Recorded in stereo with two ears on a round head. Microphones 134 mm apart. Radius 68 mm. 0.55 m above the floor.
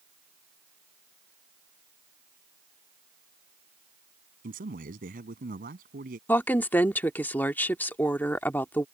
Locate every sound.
4.4 s a man speaking: 70° right (ahead or behind)
6.3 s a woman speaking: 15° left (ahead or behind)